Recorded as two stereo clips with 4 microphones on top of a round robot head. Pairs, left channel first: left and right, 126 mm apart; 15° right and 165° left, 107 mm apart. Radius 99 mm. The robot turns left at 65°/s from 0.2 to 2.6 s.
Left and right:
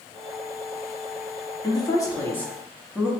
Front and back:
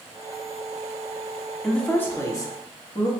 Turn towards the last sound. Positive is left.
turn(degrees=10)